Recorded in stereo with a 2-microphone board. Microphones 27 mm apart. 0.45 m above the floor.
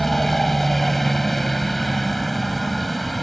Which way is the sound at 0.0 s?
5° left (ahead or behind).